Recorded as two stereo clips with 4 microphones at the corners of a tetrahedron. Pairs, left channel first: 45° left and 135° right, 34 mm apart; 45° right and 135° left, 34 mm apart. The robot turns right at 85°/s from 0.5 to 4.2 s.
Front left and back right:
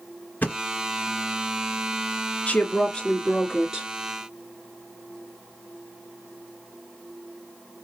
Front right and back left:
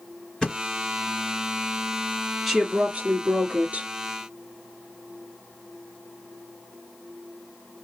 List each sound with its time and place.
0.4 s a thud: 25° left, 1.9 m; by 0.6 s 35° left, 1.9 m
2.5 s a woman speaking: 45° left, 2 m; by 3.9 s 170° left, 2 m